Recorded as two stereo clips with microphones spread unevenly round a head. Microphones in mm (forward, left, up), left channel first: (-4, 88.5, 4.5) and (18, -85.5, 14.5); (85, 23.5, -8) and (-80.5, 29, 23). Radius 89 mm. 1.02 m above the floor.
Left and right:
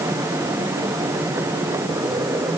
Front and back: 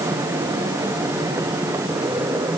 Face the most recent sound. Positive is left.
No sound to turn to.